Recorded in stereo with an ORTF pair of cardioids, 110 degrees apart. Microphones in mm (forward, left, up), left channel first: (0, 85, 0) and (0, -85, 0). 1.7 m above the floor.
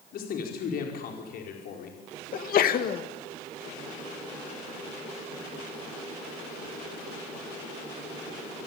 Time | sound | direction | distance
0.1 | a man speaking | 65° left | 5.5 m
2.3 | a sneeze | 60° left | 2.5 m